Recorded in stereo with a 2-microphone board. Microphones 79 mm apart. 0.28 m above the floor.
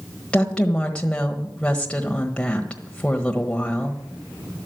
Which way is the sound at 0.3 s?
15° left (ahead or behind).